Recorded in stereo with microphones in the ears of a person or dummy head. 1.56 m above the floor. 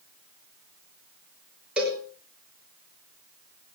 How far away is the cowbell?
About 5.5 m.